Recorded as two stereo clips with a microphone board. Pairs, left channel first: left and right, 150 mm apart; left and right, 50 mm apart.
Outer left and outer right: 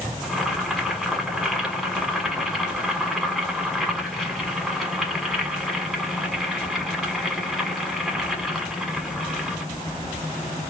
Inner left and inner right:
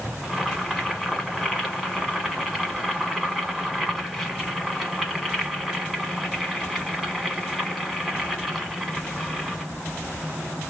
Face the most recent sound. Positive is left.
turn(degrees=0)  # may be behind; listen again after turning